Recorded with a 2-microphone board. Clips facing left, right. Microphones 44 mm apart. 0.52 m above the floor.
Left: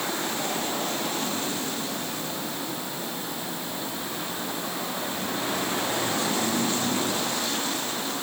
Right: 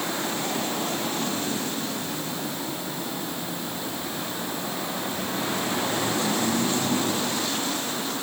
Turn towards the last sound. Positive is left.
No sound to turn to.